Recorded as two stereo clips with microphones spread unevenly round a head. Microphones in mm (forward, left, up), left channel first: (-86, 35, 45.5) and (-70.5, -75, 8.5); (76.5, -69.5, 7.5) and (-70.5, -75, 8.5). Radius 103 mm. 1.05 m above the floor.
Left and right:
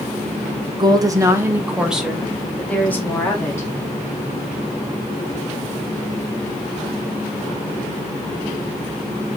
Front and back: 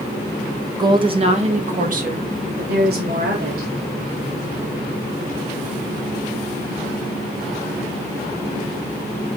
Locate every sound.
0.8 s a woman speaking: 115° right, 1.7 m; by 3.7 s 170° left, 3 m